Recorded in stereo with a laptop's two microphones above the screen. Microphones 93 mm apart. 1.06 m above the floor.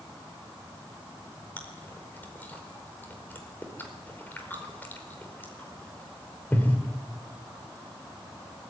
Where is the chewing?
20° left (ahead or behind), 4.5 m.